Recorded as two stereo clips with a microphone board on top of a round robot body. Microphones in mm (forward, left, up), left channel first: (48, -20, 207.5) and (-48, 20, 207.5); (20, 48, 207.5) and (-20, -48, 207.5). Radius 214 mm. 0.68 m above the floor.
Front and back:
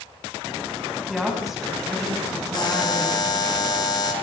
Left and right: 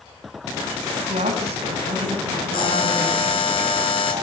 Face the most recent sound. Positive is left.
turn(degrees=30)